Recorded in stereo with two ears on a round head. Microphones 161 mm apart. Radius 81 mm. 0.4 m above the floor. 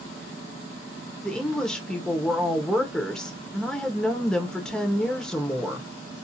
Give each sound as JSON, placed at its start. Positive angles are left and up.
{"t": 1.2, "sound": "a woman speaking", "side_deg": 5, "distance_m": 0.8}